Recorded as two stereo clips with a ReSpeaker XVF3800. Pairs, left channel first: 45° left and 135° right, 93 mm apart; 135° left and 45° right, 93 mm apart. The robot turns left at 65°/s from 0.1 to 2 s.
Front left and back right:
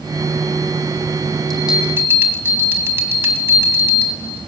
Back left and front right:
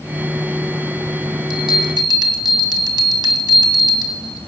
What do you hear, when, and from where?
1.5 s a bell: 40° right, 1.8 m; by 4.5 s 75° right, 1.8 m